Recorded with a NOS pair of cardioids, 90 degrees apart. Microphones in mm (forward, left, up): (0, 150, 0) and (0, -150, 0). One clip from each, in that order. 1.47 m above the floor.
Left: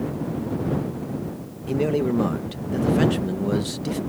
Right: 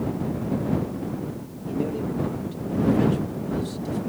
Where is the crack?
I don't hear a crack.